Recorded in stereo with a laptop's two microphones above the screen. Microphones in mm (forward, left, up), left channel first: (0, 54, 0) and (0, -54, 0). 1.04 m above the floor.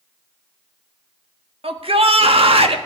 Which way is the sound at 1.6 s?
60° right (ahead or behind).